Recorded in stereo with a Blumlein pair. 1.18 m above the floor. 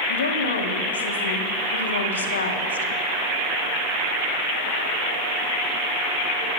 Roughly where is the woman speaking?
Left.